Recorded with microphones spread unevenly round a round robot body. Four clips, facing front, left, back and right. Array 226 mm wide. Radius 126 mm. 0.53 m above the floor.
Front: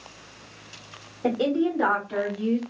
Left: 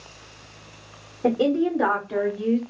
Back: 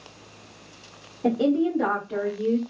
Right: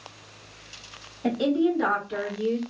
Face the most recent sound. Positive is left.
turn(degrees=70)